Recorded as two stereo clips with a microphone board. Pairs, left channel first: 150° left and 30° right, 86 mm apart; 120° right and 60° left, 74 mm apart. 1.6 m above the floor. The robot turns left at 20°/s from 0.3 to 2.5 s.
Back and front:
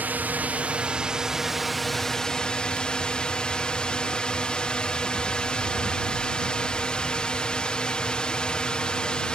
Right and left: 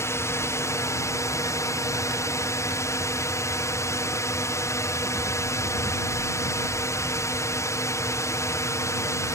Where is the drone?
90° right; by 9.4 s 135° right.